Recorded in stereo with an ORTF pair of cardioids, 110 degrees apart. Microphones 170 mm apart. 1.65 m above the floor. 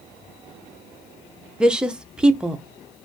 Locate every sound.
1.6 s a woman speaking: 5° right, 0.7 m